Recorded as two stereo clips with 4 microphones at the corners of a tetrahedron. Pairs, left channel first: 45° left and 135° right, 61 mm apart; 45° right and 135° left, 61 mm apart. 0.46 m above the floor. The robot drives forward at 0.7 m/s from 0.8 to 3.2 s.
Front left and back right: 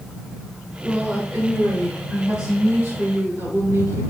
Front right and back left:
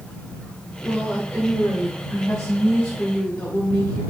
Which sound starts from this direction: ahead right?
A woman speaking, at 0.8 s.